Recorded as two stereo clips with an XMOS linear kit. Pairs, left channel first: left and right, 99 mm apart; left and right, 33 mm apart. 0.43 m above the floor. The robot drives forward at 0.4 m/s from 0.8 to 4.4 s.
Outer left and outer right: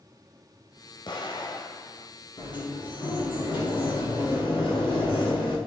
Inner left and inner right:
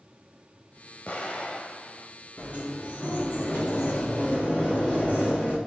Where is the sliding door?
50° left (ahead or behind), 6 m; by 5.6 s 60° left (ahead or behind), 5.5 m.